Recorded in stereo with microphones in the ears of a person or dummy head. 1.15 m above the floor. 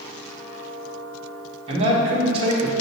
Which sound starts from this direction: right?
A man speaking, at 1.7 s.